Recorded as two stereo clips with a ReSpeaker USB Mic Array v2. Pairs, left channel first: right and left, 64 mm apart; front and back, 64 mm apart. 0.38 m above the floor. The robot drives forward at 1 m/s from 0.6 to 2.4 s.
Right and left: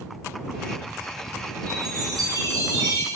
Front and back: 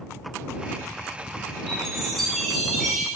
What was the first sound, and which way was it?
A chime, 80° left.